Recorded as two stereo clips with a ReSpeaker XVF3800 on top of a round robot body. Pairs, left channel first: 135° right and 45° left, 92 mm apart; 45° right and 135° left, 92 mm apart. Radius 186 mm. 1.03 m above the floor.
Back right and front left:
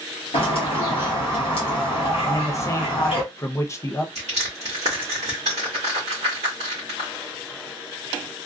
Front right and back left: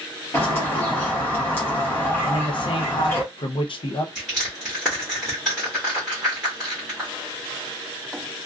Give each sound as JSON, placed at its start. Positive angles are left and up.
{"t": 0.3, "sound": "a bird", "azimuth_deg": -110, "distance_m": 0.5}
{"t": 2.2, "sound": "a man speaking", "azimuth_deg": -75, "distance_m": 0.5}
{"t": 4.2, "sound": "crushing", "azimuth_deg": 40, "distance_m": 0.8}